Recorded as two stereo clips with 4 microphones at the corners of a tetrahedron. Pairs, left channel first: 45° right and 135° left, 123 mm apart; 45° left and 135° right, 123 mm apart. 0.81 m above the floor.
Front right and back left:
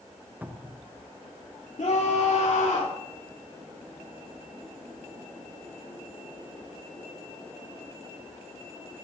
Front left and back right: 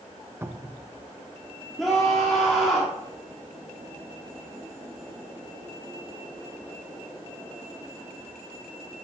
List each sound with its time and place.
0.4 s a cupboard door: 175° right, 0.6 m
1.8 s a scream: 45° right, 1.7 m